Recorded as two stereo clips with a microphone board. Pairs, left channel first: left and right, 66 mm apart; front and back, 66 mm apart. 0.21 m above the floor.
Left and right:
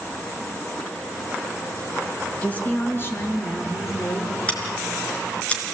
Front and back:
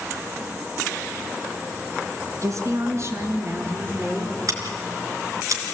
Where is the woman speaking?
160° left, 3 m; by 4.4 s 120° left, 4.5 m.